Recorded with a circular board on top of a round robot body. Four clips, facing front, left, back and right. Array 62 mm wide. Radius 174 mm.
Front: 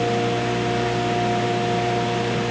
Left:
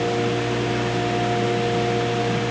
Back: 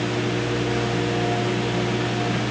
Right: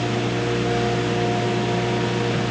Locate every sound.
Only background noise.